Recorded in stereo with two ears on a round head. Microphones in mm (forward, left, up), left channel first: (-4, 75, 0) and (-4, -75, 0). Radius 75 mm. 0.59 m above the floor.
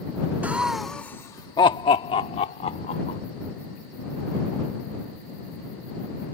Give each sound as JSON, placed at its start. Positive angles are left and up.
{"t": 0.4, "sound": "laughter", "side_deg": -10}